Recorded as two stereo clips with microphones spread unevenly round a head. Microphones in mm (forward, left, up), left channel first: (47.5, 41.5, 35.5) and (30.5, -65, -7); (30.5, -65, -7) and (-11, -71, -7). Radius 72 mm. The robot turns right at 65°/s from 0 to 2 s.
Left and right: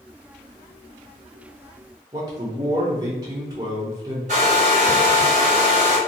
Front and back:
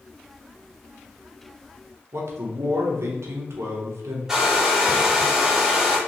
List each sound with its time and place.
2.1 s a man speaking: 165° right, 0.7 m
4.3 s a hair dryer: 95° right, 1.1 m